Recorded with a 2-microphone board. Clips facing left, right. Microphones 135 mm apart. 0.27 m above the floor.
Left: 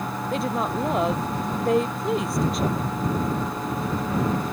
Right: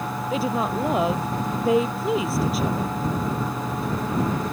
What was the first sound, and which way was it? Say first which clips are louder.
A woman speaking: right 2 dB; centre (ahead or behind).